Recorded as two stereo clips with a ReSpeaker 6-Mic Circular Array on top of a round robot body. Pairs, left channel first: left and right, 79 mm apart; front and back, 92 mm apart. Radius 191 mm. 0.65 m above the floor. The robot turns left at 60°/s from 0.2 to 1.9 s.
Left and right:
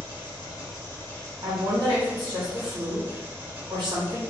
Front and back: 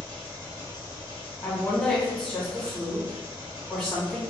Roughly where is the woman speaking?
Ahead right.